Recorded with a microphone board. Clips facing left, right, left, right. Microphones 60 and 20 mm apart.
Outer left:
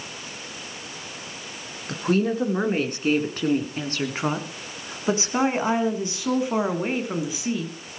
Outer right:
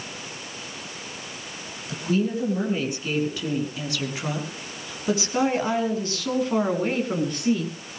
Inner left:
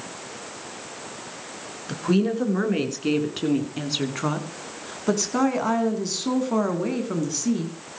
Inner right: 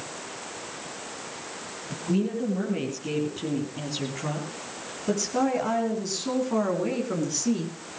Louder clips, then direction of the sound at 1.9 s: Outer left 2 dB, inner left 5 dB; 55° left (ahead or behind).